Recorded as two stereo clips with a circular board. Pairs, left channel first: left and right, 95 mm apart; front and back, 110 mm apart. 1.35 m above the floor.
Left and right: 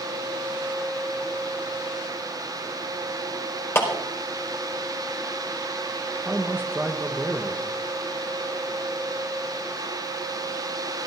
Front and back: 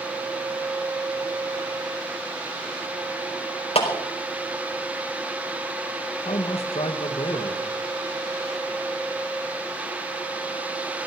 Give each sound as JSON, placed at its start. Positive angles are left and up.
{"t": 3.8, "sound": "a clap", "azimuth_deg": 25, "distance_m": 5.0}
{"t": 6.2, "sound": "a man speaking", "azimuth_deg": -20, "distance_m": 1.5}